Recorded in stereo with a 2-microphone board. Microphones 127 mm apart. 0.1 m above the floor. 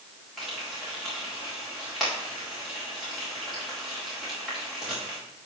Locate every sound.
0.4 s frying: centre (ahead or behind), 5 m